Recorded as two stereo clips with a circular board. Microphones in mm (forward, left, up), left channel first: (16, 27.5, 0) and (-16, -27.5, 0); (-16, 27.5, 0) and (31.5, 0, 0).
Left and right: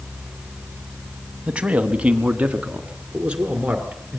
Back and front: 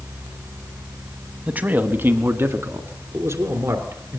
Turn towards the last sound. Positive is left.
turn(degrees=-50)